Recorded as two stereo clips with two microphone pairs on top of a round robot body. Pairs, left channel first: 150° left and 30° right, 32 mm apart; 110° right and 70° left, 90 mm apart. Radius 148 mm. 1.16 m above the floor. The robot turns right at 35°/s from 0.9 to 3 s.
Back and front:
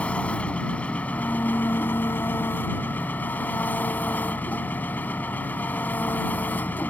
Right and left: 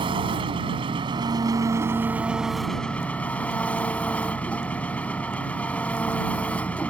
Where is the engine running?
100° left; by 6.9 s 175° left.